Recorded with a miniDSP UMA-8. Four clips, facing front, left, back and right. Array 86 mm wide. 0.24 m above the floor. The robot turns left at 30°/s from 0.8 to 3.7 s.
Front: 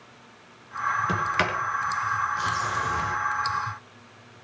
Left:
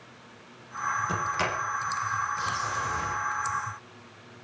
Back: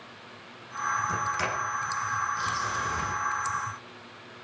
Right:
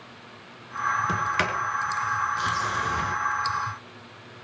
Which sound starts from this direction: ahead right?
A sliding door, at 1.1 s.